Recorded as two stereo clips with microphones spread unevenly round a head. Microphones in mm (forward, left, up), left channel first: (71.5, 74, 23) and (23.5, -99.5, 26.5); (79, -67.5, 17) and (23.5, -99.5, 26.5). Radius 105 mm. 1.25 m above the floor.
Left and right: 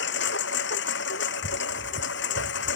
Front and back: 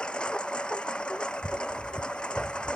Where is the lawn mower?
115° left.